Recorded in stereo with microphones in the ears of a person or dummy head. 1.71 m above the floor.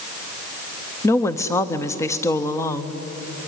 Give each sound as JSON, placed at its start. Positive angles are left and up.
{"t": 1.0, "sound": "a woman speaking", "side_deg": 20, "distance_m": 0.7}